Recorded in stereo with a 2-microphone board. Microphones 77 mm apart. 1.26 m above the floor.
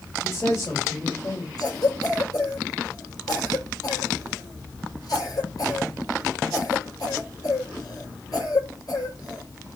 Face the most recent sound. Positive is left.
turn(degrees=60)  # may be behind; listen again after turning